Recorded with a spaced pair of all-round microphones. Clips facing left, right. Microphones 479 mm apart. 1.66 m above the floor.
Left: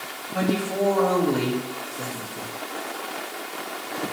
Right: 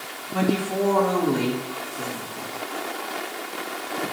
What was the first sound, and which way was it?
A woman speaking, 25° right (ahead or behind).